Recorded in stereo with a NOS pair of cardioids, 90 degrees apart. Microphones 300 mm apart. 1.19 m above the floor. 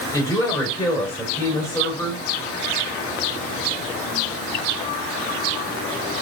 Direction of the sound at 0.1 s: 10° left.